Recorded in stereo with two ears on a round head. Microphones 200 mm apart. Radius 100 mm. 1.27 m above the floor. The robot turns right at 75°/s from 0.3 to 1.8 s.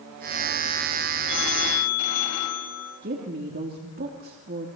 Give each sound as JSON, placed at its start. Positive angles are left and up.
{"t": 1.3, "sound": "a phone ringing", "azimuth_deg": 55, "distance_m": 3.5}
{"t": 3.0, "sound": "a woman speaking", "side_deg": -45, "distance_m": 3.0}